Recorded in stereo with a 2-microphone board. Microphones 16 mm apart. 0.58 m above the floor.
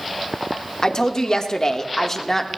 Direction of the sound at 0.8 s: 55° left (ahead or behind).